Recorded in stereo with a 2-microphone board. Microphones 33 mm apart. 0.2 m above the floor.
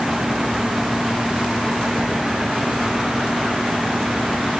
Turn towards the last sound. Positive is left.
No sound to turn to.